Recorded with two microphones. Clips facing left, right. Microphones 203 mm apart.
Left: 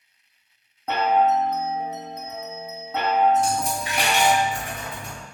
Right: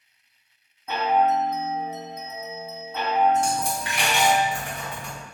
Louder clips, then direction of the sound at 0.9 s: Left 2 dB; 65° left (ahead or behind).